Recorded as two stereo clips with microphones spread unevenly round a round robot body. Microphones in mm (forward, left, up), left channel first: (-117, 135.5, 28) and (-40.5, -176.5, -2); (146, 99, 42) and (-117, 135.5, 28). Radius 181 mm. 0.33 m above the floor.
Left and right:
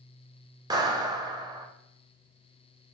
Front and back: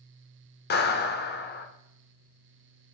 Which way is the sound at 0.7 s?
15° right.